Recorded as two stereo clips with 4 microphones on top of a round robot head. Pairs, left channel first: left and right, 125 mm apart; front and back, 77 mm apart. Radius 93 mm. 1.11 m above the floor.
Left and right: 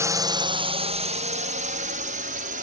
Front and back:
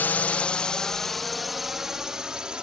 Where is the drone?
45° right; by 2.6 s 95° right.